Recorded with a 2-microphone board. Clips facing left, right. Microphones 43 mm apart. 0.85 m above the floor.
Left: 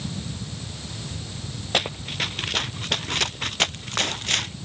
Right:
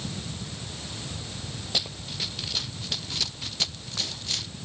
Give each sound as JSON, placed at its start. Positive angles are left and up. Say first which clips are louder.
{"t": 1.7, "sound": "running footsteps", "louder": "left 8 dB", "side_deg": 55}